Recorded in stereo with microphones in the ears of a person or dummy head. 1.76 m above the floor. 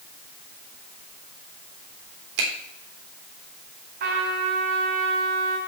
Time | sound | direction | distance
2.4 | a finger snap | 65° right (ahead or behind) | 4 m
4.0 | a trumpet | 60° right (ahead or behind) | 3.5 m